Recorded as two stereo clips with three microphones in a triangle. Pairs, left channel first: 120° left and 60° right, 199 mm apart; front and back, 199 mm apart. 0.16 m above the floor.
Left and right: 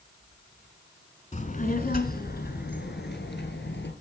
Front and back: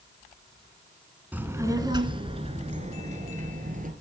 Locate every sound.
1.3 s a child speaking: 100° left, 1.1 m; by 3.9 s 135° left, 2 m